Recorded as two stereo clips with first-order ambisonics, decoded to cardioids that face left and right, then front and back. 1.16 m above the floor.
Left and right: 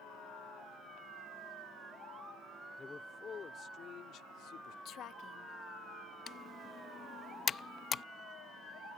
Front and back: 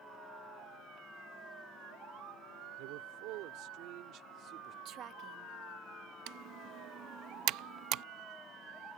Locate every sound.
2.8 s a man speaking: 165° left; by 4.8 s 125° left
4.8 s a woman speaking: 135° left
6.3 s typing on a keyboard: 150° left